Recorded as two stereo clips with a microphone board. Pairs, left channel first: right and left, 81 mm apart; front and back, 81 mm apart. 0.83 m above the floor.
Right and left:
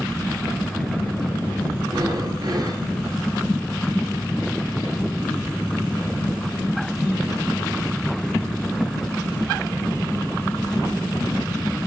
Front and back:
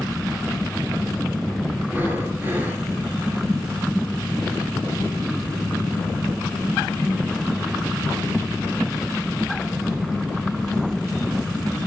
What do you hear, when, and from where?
1.8 s breathing: 120° left, 2.5 m